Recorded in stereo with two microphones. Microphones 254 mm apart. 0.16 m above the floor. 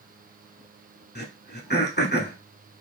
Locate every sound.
1.1 s throat clearing: 40° left (ahead or behind), 0.6 m